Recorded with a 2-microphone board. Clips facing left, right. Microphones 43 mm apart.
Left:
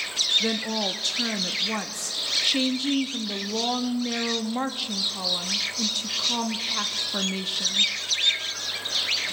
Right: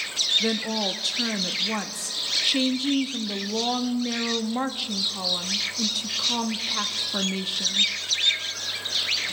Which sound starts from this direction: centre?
A woman speaking, at 0.4 s.